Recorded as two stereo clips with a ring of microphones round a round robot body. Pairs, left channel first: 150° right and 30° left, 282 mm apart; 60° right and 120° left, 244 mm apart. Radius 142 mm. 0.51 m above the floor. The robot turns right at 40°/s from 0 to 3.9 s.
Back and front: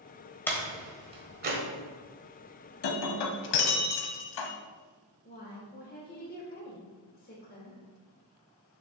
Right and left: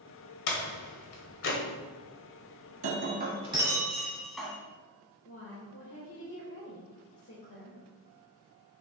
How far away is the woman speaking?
About 1.4 m.